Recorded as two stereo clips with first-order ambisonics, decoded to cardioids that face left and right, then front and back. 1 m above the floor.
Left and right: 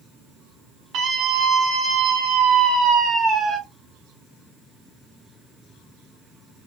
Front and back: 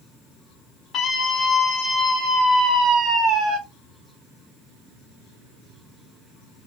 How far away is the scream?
About 1.6 m.